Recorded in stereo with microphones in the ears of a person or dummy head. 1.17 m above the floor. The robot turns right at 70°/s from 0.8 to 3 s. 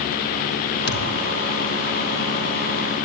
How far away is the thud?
About 4 m.